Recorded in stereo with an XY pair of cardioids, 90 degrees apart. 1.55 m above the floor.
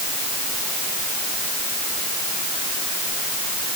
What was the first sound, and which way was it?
Only background noise.